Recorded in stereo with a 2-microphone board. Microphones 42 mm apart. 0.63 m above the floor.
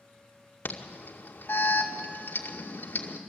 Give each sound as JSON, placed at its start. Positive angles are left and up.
{"t": 0.7, "sound": "an alarm", "side_deg": 55, "distance_m": 2.0}